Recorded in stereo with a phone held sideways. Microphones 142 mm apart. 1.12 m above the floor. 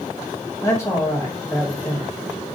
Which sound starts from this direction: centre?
A man speaking, at 0.6 s.